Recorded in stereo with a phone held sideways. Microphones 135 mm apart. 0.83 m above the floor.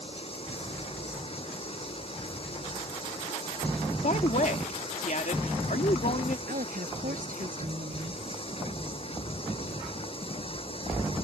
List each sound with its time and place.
0.0 s running water: 45° left (ahead or behind)
4.0 s a woman speaking: 65° left (ahead or behind)
6.5 s a woman speaking: 85° right